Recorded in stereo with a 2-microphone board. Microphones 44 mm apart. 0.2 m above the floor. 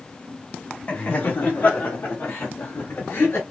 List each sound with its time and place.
0.9 s laughter: 35° left (ahead or behind), 1.4 m; by 3.4 s 60° left (ahead or behind), 2.5 m